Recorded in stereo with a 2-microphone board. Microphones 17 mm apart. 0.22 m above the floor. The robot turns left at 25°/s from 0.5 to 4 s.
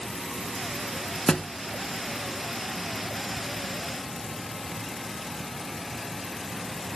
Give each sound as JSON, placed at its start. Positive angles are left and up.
{"t": 1.3, "sound": "a thud", "side_deg": 45, "distance_m": 0.7}